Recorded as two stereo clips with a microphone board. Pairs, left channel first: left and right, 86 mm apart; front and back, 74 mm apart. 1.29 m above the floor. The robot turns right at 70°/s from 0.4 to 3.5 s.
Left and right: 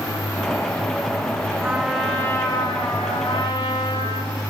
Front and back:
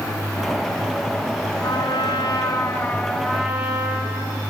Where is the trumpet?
25° right, 2 m; by 4.4 s 105° left, 2 m.